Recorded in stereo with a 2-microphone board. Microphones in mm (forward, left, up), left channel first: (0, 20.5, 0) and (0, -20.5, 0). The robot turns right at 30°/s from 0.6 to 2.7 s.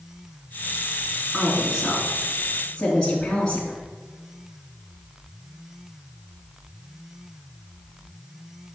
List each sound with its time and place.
1.3 s a woman speaking: 20° right (ahead or behind), 2.5 m; by 3.8 s 15° left (ahead or behind), 2.5 m